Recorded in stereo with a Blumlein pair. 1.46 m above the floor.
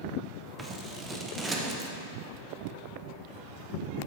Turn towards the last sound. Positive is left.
turn(degrees=-15)